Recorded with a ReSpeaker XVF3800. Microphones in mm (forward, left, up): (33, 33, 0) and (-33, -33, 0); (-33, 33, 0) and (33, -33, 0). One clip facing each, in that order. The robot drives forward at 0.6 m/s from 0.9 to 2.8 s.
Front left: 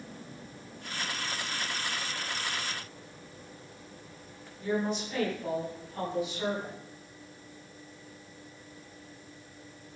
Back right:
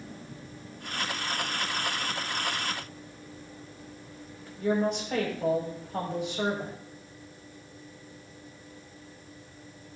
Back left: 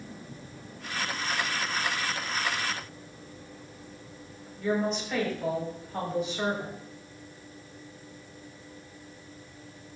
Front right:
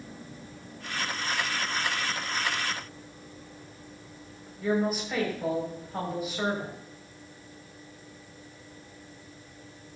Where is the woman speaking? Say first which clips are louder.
Back right 4 dB, front right 1 dB; 130° right, 6.5 m.